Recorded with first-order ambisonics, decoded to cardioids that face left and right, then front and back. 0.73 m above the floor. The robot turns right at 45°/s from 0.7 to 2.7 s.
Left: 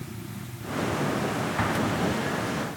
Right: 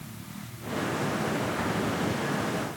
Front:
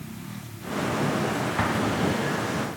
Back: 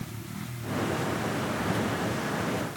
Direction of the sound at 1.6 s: 30° left.